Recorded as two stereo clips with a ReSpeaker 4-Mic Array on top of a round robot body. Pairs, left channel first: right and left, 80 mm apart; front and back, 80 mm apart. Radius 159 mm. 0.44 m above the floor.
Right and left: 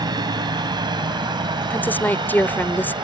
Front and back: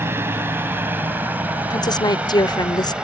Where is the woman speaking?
25° right.